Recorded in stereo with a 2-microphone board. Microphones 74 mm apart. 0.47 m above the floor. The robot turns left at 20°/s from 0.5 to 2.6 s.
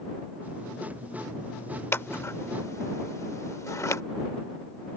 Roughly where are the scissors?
Left.